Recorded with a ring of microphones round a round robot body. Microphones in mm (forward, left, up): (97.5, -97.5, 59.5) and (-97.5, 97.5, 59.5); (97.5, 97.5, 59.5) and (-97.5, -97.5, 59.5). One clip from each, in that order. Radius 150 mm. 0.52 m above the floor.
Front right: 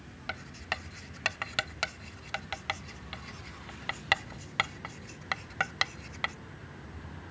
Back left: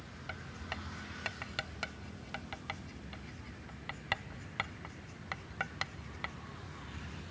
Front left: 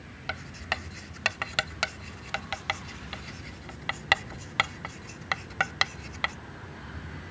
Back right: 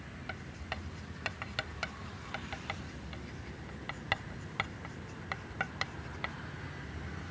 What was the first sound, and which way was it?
Writing, 5° left.